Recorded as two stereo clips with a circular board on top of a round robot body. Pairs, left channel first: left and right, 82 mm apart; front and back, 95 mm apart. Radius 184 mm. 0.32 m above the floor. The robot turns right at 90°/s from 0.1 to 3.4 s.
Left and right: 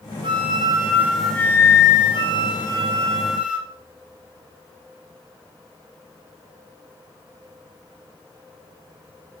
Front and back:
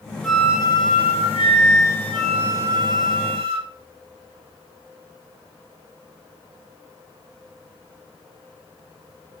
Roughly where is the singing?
No singing in this recording.